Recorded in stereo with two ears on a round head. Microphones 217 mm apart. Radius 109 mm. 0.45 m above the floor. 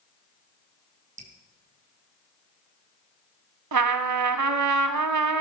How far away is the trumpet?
About 1.0 m.